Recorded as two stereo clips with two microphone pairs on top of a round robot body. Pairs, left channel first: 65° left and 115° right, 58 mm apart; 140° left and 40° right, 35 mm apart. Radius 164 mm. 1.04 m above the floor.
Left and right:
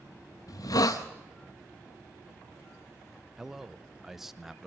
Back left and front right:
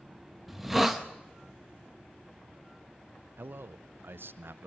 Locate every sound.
0.5 s a hiss: 45° left, 0.6 m
3.4 s a man speaking: 30° right, 0.6 m